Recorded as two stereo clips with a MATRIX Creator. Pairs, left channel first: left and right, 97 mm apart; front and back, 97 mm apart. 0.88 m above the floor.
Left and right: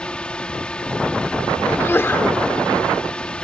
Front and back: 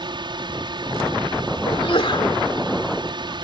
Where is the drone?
165° left.